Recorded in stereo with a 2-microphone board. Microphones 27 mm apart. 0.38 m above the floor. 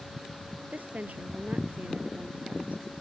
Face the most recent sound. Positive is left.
turn(degrees=-75)  # may be behind; listen again after turning